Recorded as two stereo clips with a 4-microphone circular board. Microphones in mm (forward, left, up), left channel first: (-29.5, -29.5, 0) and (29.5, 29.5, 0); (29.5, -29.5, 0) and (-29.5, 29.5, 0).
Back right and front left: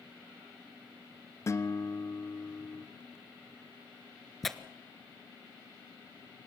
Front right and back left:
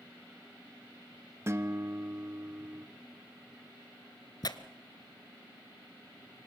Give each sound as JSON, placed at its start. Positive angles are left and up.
{"t": 1.5, "sound": "a guitar", "azimuth_deg": -175, "distance_m": 0.9}
{"t": 4.4, "sound": "tearing paper", "azimuth_deg": -45, "distance_m": 1.1}